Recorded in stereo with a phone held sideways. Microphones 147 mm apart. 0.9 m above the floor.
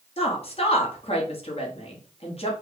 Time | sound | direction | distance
0.2 | a woman speaking | 45° left (ahead or behind) | 1.1 m